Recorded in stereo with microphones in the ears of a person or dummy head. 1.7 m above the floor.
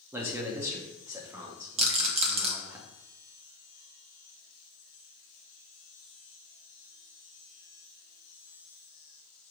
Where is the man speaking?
15° right (ahead or behind), 0.5 m.